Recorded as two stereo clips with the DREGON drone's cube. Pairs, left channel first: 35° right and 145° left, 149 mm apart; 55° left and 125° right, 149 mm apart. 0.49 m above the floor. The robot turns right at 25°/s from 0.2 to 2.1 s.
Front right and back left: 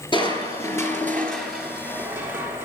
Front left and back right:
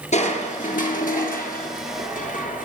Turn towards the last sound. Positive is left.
turn(degrees=70)